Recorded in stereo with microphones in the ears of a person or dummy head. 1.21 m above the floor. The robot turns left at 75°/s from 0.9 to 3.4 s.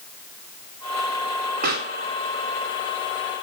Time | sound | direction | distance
1.6 | a pop | 50° right (ahead or behind) | 1.4 m